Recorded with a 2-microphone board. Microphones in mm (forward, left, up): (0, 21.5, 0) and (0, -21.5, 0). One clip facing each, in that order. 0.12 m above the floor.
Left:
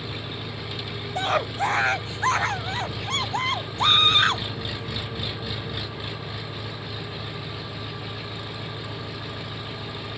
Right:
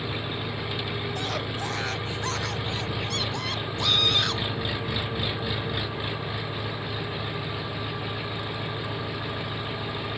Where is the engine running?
15° right (ahead or behind).